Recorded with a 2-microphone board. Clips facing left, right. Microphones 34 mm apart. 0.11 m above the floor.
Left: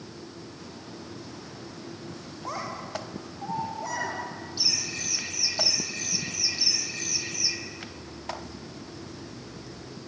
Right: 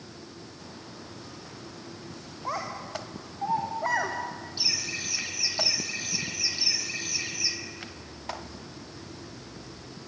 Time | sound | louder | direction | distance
2.5 | a child speaking | right 1 dB | 15° right (ahead or behind) | 4.5 m
4.6 | laughter | even | 15° right (ahead or behind) | 4 m